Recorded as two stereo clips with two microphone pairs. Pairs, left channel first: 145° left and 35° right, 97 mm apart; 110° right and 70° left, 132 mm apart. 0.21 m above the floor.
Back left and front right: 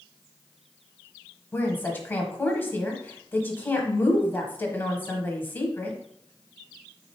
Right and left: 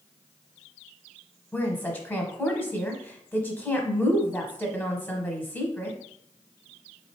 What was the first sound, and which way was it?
A woman speaking, 170° right.